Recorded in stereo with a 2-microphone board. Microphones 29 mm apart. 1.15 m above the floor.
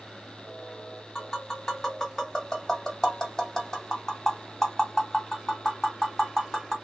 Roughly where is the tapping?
Centre.